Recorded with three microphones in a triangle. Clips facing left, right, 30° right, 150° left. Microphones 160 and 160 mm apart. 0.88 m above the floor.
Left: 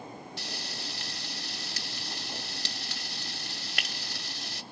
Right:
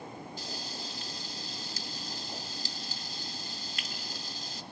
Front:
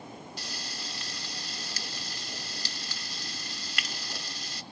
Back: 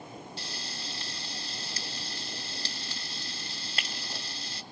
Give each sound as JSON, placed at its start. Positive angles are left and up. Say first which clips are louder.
{"t": 0.4, "sound": "frying", "louder": "even, even", "azimuth_deg": 90, "distance_m": 1.6}